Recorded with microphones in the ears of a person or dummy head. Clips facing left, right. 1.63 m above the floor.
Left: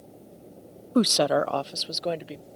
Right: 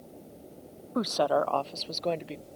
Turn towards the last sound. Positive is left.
turn(degrees=5)  # may be behind; listen again after turning